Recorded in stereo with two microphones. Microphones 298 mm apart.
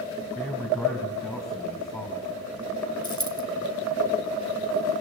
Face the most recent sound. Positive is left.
turn(degrees=70)  # may be behind; listen again after turning